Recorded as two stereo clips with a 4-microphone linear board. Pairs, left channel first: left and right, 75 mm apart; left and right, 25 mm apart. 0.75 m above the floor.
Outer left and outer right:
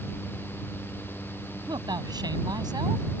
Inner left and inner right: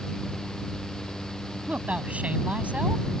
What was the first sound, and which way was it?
A man speaking, 70° right (ahead or behind).